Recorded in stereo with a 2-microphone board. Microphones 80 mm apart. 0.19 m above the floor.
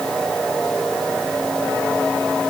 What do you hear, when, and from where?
Only background noise.